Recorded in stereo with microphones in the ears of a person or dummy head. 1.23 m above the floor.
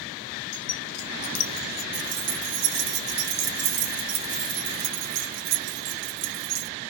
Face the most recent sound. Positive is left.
turn(degrees=-70)  # may be behind; listen again after turning